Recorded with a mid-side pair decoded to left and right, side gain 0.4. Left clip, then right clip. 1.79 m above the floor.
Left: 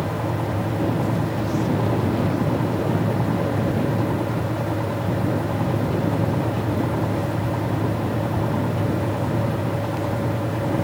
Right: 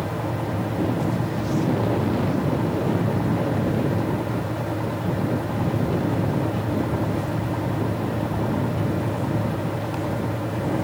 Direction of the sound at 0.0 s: 20° left.